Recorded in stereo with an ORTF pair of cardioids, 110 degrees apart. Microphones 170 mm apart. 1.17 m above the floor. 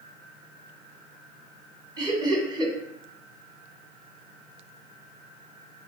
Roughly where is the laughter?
Ahead right.